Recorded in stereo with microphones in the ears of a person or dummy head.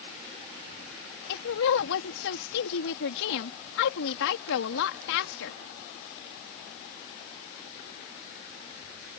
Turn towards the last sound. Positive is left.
turn(degrees=70)  # may be behind; listen again after turning